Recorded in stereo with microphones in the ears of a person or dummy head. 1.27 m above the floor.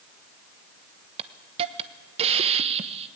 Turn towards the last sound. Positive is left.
turn(degrees=-35)  # may be behind; listen again after turning